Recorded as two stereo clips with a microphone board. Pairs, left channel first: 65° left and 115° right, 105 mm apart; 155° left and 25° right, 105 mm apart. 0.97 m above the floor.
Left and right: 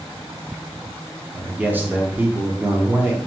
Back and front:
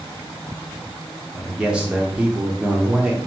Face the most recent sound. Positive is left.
turn(degrees=-85)